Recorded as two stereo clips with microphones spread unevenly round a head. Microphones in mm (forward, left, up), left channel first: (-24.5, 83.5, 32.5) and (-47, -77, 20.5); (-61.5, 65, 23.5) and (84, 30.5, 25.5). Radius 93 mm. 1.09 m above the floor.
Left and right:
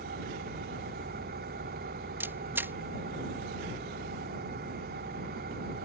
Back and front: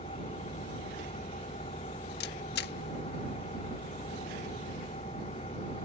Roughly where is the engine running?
Behind right.